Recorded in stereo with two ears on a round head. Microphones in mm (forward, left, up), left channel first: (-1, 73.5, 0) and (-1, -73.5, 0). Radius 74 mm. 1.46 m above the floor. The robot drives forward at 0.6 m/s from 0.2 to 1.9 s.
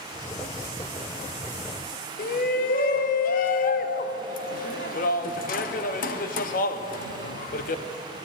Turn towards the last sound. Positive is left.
turn(degrees=55)  # may be behind; listen again after turning